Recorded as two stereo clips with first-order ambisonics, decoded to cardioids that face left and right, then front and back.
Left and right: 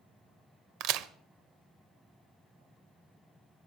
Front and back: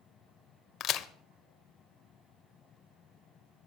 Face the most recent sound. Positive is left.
turn(degrees=-50)